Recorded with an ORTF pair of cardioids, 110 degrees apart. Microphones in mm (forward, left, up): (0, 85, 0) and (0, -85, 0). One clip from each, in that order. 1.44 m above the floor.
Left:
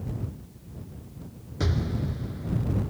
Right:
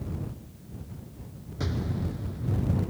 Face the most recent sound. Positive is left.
turn(degrees=30)